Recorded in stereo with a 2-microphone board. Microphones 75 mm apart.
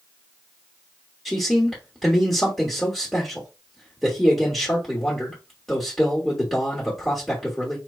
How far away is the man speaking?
About 1.5 m.